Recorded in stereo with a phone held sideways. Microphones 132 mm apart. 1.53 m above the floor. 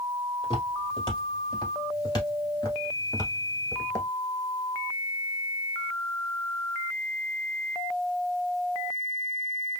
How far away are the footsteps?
About 2.5 m.